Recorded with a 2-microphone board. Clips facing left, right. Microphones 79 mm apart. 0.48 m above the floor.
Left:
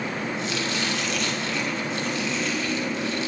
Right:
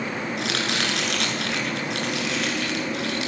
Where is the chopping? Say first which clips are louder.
Right 1 dB; 70° right (ahead or behind), 6 m.